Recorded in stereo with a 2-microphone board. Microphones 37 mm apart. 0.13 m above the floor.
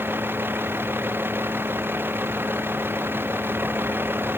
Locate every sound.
0.0 s a vehicle: 80° right